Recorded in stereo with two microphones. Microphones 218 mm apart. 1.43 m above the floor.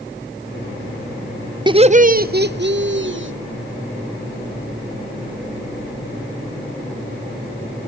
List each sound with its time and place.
1.7 s laughter: 20° right (ahead or behind), 0.6 m; by 3.3 s 65° right (ahead or behind), 1.6 m